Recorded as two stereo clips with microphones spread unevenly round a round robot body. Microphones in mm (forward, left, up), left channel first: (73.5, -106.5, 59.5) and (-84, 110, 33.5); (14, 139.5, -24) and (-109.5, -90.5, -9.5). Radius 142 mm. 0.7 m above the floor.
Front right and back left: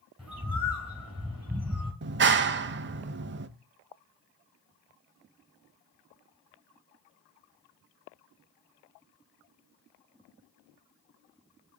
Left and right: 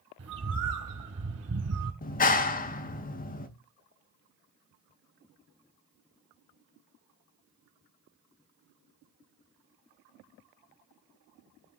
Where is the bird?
150° right, 3.5 m.